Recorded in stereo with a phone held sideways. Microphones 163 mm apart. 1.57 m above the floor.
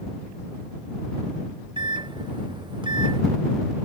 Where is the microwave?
25° right (ahead or behind).